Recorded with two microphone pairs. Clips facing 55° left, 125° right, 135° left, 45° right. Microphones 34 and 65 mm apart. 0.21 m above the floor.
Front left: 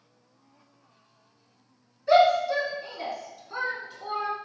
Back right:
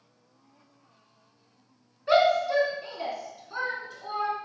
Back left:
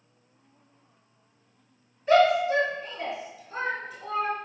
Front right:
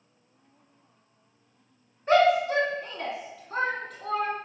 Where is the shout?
80° right, 2.0 m; by 4.3 s 20° right, 2.5 m.